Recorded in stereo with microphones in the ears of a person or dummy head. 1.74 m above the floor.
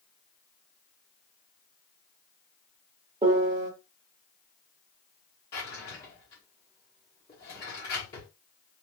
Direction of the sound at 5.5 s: 25° left (ahead or behind).